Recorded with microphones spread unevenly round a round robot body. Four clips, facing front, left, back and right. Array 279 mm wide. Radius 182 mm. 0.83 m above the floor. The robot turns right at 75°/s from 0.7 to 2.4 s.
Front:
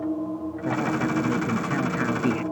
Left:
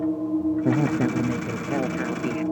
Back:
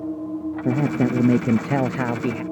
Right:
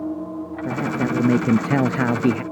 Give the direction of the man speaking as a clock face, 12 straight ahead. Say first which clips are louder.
Left 2 dB, back 4 dB; 7 o'clock.